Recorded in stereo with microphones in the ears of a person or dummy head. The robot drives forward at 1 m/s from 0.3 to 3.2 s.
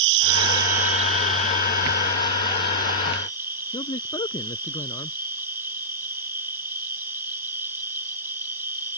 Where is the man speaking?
20° left (ahead or behind).